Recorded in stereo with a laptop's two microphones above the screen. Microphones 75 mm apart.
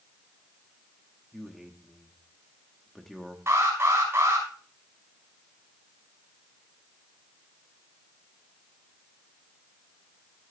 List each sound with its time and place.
1.3 s a man speaking: centre (ahead or behind), 1.1 m
3.5 s an alarm: 35° right (ahead or behind), 3.5 m